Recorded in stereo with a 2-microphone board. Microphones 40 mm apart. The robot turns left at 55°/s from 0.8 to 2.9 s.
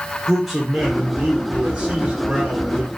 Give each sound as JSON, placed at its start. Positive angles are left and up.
{"t": 0.3, "sound": "a man speaking", "side_deg": -5, "distance_m": 0.9}